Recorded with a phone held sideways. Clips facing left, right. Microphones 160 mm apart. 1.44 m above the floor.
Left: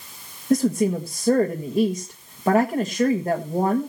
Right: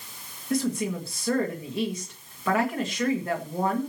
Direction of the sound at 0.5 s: 35° left (ahead or behind).